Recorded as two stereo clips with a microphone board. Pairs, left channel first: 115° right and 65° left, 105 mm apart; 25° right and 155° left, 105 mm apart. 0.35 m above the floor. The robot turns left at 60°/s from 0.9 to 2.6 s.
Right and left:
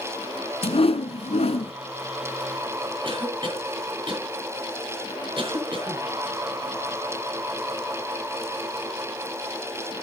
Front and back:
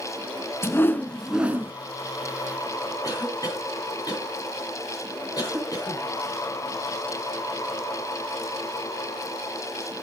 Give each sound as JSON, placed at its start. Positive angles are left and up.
{"t": 0.6, "sound": "a whoosh", "azimuth_deg": -90, "distance_m": 0.8}
{"t": 3.0, "sound": "a cough", "azimuth_deg": 30, "distance_m": 4.0}